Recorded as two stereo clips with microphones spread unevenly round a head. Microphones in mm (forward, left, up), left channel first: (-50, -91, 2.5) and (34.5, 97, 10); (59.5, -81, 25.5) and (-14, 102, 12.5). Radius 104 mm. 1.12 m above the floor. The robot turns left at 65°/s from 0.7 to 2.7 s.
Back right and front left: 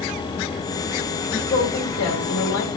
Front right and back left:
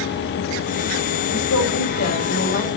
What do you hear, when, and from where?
1.3 s a woman speaking: 40° right, 3 m; by 2.7 s 130° right, 3 m